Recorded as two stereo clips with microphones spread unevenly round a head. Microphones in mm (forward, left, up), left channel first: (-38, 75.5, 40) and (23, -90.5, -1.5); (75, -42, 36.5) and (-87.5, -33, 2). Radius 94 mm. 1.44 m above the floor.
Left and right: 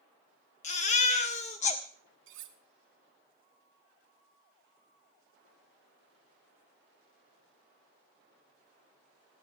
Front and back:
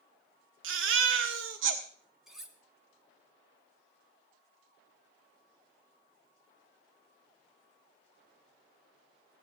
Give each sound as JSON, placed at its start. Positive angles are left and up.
{"t": 0.6, "sound": "a baby crying", "azimuth_deg": 150, "distance_m": 1.6}
{"t": 2.3, "sound": "cutlery clinking", "azimuth_deg": -90, "distance_m": 1.4}